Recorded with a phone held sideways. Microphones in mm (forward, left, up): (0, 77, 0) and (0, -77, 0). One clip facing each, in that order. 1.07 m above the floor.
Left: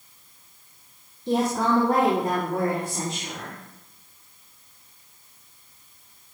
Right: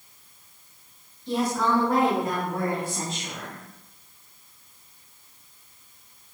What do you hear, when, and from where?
1.3 s a woman speaking: 50° left (ahead or behind), 1.8 m; by 3.6 s 20° left (ahead or behind), 4.5 m